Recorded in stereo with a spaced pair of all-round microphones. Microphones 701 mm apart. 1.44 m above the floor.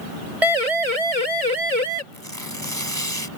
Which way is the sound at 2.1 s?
25° right (ahead or behind).